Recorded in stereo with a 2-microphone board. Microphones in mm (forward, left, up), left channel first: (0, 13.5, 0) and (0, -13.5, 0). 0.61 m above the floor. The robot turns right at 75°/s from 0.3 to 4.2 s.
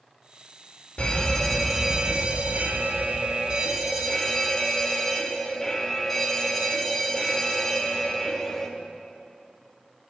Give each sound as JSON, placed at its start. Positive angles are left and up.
{"t": 1.0, "sound": "a fire alarm", "azimuth_deg": 120, "distance_m": 3.5}